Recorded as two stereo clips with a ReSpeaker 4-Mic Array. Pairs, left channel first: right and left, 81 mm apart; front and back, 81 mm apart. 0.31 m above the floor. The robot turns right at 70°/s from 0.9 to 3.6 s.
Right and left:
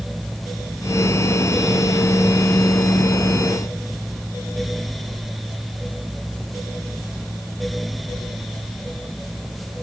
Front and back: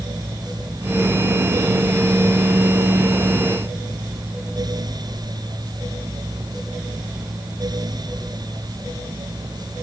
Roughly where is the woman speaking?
I don't hear a woman speaking.